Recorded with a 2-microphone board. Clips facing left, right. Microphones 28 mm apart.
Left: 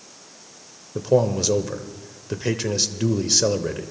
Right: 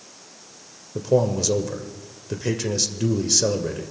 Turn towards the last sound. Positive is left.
turn(degrees=15)  # may be behind; listen again after turning